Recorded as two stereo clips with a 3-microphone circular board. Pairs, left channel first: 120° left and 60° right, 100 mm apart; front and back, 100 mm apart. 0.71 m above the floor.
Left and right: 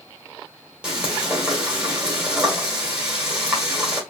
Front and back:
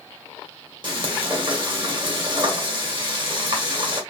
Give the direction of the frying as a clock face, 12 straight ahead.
5 o'clock.